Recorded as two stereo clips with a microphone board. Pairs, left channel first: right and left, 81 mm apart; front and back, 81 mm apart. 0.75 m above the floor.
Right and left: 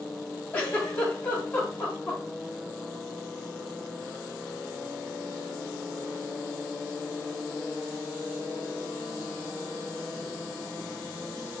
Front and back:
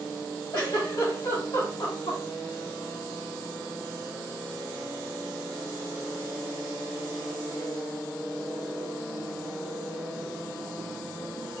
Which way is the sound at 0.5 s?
30° right.